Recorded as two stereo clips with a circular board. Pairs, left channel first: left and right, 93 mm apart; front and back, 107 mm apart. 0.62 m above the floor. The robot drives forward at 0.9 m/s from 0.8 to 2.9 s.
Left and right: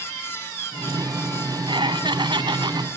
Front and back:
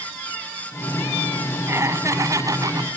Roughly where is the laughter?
Behind right.